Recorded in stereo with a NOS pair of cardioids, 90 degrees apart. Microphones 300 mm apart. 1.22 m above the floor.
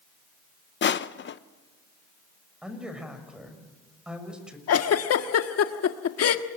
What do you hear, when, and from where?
0.8 s crushing: 40° left, 1.0 m
2.6 s a woman speaking: 5° right, 5.5 m
4.7 s a giggle: 60° left, 1.6 m